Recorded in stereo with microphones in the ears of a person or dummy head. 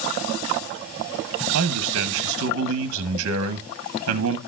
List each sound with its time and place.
1.5 s a man speaking: 65° right (ahead or behind), 0.9 m